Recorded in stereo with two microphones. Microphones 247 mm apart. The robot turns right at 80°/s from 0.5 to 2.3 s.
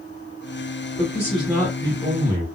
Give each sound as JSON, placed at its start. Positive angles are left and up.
{"t": 1.0, "sound": "a man speaking", "azimuth_deg": 145, "distance_m": 1.5}